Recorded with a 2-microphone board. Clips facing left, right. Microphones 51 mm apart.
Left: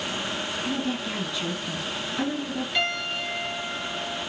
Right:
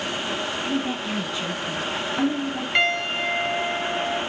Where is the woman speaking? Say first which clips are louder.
Right 2 dB; 25° right (ahead or behind), 1.9 m.